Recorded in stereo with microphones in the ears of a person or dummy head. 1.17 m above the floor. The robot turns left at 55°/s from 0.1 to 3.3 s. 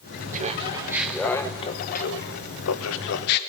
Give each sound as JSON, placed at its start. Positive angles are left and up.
{"t": 0.3, "sound": "laughter", "azimuth_deg": -140, "distance_m": 0.9}